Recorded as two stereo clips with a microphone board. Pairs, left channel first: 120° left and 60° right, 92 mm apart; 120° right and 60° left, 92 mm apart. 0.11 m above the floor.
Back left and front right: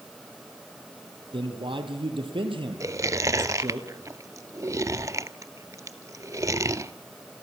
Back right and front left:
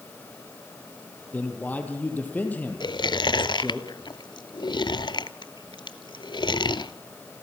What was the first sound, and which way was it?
A man speaking, 50° right.